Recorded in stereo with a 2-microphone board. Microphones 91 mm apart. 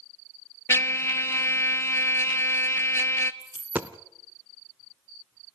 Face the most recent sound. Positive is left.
turn(degrees=-20)  # may be behind; listen again after turning